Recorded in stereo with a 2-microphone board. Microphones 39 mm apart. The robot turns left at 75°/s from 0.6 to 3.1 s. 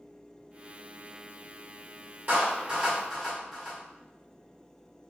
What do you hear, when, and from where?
2.3 s a clap: 60° right (ahead or behind), 1.9 m; by 3.8 s centre (ahead or behind), 1.9 m